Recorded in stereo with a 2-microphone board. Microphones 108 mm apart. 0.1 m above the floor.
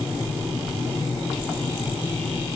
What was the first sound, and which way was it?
Only background noise.